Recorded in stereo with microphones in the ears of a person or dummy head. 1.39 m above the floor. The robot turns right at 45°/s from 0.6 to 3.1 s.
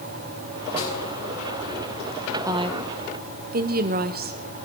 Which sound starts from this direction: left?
A snare drum, at 0.8 s.